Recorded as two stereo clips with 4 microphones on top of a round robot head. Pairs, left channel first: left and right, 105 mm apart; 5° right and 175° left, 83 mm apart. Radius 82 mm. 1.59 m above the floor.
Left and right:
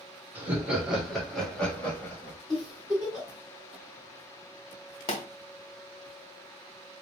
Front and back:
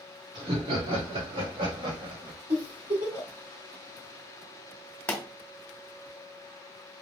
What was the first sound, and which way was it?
Laughter, 165° right.